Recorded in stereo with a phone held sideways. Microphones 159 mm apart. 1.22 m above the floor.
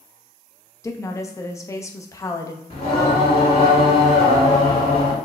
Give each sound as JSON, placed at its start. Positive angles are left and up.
{"t": 0.8, "sound": "a woman speaking", "side_deg": 20, "distance_m": 0.7}
{"t": 2.7, "sound": "singing", "side_deg": 40, "distance_m": 2.0}